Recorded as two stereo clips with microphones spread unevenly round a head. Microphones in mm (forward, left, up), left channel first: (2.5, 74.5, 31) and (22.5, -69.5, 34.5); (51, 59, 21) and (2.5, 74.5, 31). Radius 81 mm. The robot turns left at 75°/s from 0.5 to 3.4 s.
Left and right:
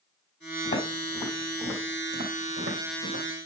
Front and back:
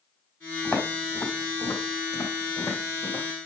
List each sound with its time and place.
0.7 s footsteps: 65° left, 4 m; by 3.2 s 105° right, 3.5 m